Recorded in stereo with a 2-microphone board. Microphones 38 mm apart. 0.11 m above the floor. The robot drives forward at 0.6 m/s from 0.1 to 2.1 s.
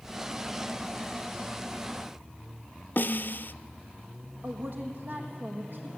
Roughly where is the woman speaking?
Right.